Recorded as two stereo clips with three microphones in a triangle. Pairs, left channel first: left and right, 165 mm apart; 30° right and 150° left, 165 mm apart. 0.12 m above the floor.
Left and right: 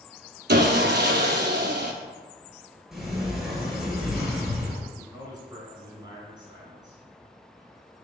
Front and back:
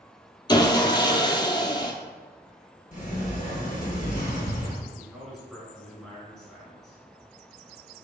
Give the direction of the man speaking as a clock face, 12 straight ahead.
4 o'clock.